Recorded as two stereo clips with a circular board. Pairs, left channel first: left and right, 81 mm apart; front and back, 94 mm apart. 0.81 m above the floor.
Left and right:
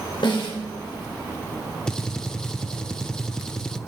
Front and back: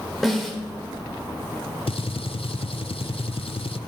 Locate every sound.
0.2 s a snare drum: 90° left, 3.5 m
1.9 s a gunshot: 10° left, 0.7 m